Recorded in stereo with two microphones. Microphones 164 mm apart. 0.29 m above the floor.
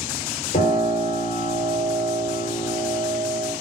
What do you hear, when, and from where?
0.5 s a piano: 55° left (ahead or behind), 0.9 m